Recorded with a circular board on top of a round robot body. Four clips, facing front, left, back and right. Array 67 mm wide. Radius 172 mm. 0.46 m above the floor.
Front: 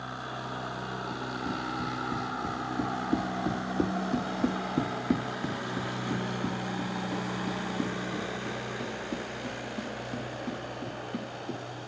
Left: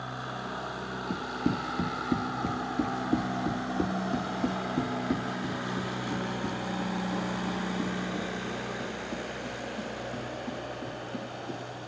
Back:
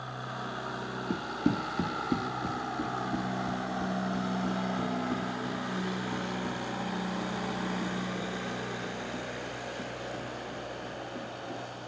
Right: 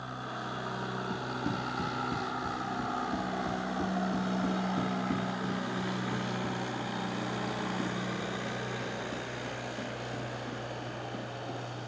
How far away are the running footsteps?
About 1.0 m.